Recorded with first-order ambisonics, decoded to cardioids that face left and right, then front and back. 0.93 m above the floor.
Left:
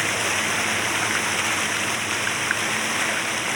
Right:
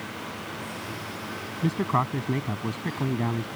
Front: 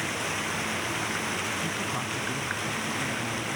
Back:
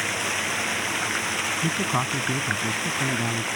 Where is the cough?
No cough in this recording.